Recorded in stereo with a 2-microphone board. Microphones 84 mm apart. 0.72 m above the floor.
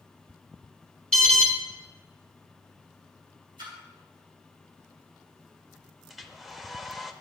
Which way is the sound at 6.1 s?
5° right (ahead or behind).